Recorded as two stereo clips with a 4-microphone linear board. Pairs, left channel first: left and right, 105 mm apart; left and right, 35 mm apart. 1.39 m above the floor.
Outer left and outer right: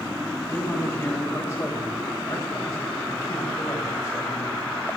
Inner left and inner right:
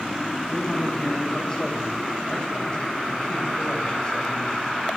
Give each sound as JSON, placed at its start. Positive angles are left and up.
{"t": 0.5, "sound": "a man speaking", "side_deg": 30, "distance_m": 8.0}